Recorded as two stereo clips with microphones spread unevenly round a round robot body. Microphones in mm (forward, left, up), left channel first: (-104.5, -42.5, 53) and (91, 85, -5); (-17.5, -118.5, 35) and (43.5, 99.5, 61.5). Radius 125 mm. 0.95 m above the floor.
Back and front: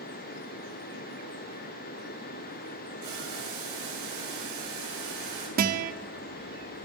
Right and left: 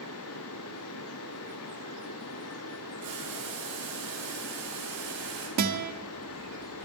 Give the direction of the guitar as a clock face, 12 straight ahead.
9 o'clock.